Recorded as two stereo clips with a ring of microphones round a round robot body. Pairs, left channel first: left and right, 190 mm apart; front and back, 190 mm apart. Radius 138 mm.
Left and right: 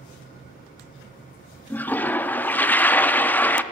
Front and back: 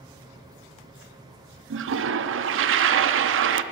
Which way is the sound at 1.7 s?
170° left.